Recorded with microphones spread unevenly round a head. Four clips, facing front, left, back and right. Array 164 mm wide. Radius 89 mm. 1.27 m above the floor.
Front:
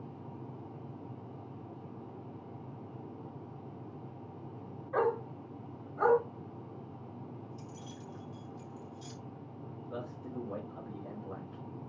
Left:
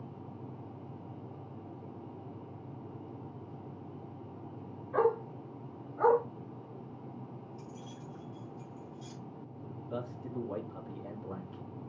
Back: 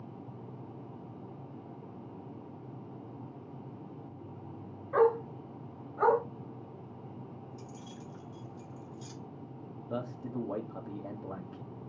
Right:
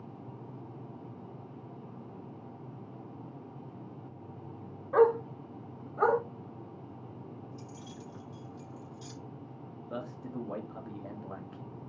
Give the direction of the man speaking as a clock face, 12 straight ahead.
6 o'clock.